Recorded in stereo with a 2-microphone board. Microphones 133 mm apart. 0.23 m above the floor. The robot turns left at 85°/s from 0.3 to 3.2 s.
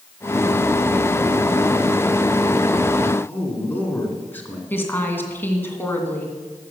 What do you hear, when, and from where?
3.3 s a man speaking: 15° left (ahead or behind), 2.5 m
4.7 s a woman speaking: 15° left (ahead or behind), 2 m